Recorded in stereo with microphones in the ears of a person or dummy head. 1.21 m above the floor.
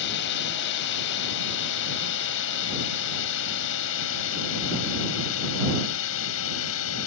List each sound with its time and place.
0.0 s a drone: 60° left (ahead or behind); by 7.1 s 75° left (ahead or behind)